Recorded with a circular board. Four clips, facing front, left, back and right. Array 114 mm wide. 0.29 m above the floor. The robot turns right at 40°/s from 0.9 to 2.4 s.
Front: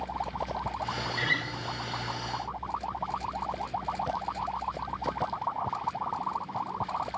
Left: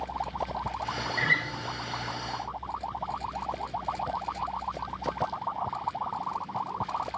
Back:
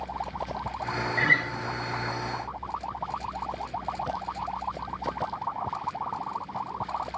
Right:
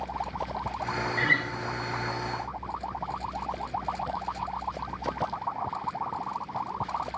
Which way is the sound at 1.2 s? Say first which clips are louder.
Even, back 6 dB; 175° right.